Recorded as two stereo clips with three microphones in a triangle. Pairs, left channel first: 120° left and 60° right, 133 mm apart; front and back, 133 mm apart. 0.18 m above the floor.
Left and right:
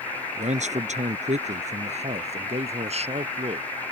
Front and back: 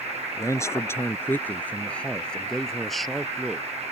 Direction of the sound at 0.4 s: 65° right.